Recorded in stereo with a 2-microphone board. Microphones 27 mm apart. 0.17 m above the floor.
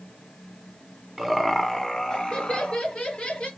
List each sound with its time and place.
1.2 s laughter: 5° left (ahead or behind), 1.3 m; by 3.5 s 50° left (ahead or behind), 2.5 m